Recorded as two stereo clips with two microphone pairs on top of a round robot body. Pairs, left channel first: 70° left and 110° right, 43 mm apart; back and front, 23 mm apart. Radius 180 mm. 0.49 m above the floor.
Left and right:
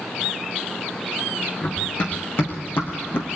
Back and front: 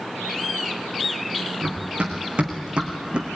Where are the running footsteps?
25° left, 3.5 m; by 3.3 s 30° left, 2.5 m.